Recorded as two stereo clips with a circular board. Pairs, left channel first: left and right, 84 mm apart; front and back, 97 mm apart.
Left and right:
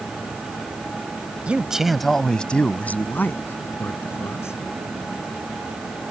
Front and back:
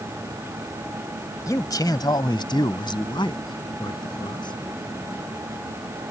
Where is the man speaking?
25° right; by 4.5 s 35° left.